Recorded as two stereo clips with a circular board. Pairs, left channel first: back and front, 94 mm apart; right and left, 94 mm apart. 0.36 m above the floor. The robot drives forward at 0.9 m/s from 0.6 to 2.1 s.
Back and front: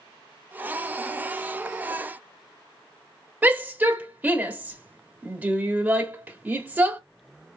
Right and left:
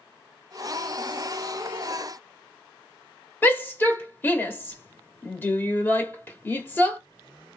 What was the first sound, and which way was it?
A shout, 50° right.